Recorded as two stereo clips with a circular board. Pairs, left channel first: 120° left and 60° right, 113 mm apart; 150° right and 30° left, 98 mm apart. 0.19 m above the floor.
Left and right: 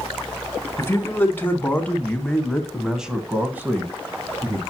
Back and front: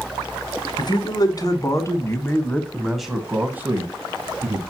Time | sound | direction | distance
0.8 | a man speaking | 175° right | 1.6 m